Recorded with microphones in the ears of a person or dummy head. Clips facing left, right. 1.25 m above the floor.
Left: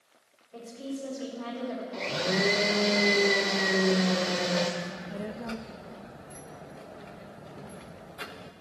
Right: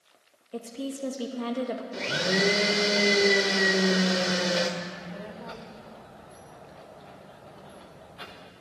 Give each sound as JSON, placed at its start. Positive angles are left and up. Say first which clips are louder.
{"t": 0.5, "sound": "a woman speaking", "louder": "right 3 dB", "side_deg": -60, "distance_m": 2.0}
{"t": 1.9, "sound": "a blender", "louder": "right 1 dB", "side_deg": -10, "distance_m": 1.1}
{"t": 4.8, "sound": "a child speaking", "louder": "left 2 dB", "side_deg": 30, "distance_m": 0.8}